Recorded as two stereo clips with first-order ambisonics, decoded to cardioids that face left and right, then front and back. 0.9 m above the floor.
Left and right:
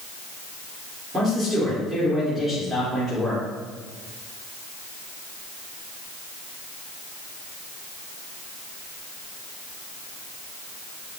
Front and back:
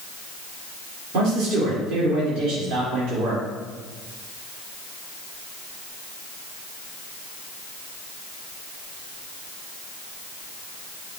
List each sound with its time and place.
1.1 s a man speaking: 165° right, 2.5 m